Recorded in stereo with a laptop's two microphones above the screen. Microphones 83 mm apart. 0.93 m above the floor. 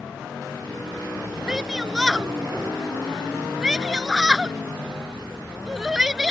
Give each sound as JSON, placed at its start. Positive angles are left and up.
{"t": 1.5, "sound": "a shout", "side_deg": -10}